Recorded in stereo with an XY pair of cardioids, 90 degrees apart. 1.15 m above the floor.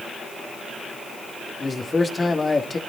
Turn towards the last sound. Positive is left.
turn(degrees=30)